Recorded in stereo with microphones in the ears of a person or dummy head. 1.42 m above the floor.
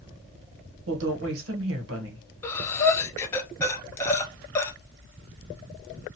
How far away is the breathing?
About 0.6 m.